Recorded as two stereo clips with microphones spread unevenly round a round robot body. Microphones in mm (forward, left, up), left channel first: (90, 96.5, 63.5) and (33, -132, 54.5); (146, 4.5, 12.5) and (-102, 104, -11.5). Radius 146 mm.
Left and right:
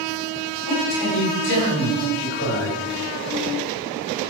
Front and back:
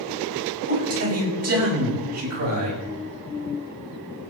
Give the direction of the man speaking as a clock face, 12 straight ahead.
8 o'clock.